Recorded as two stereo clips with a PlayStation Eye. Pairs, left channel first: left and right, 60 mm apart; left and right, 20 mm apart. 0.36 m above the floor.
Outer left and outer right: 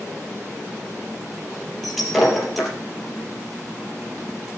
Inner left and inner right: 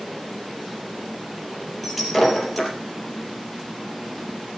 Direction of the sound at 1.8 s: Centre (ahead or behind).